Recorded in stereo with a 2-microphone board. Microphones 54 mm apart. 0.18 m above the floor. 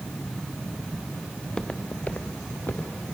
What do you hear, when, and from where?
1.4 s footsteps: 10° left (ahead or behind), 1.5 m; by 3.1 s 40° left (ahead or behind), 3 m